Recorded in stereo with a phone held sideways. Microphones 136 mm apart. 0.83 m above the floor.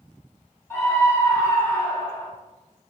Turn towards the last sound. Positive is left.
turn(degrees=20)  # may be behind; listen again after turning